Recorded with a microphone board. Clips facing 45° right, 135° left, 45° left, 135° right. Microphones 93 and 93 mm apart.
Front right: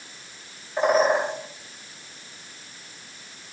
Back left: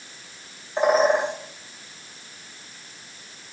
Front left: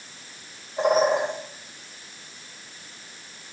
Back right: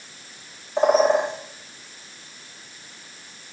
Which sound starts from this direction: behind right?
A bird, at 0.8 s.